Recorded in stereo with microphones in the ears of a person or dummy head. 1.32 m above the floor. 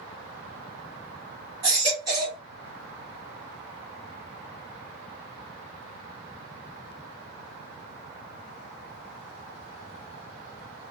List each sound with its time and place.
1.6 s a baby crying: 20° right (ahead or behind), 1.4 m